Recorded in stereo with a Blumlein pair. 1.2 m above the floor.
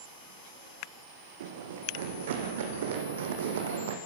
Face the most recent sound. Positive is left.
turn(degrees=-60)